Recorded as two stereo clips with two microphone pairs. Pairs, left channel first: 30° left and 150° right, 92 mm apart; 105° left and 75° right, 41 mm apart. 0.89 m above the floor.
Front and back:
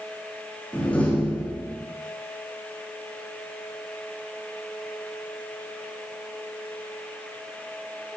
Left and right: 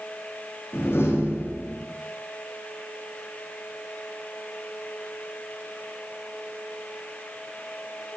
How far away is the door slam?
About 8.5 m.